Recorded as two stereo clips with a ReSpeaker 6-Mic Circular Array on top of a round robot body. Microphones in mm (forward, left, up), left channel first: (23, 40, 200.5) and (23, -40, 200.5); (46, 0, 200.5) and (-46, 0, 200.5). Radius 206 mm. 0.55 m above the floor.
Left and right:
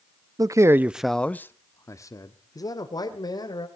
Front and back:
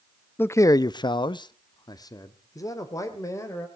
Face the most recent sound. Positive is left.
turn(degrees=60)